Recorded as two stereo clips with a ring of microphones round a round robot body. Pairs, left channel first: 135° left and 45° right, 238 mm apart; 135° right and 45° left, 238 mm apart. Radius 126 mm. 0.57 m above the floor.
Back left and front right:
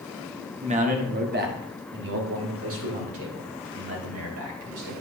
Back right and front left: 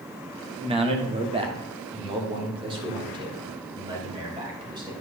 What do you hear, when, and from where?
0.6 s a man speaking: 5° right, 1.1 m; by 5.0 s 30° right, 3 m